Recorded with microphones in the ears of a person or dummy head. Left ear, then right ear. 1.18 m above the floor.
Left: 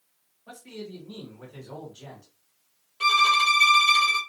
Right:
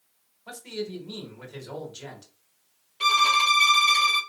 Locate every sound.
0.5 s a man speaking: 65° right (ahead or behind), 1.2 m
3.0 s a violin: 5° left (ahead or behind), 2 m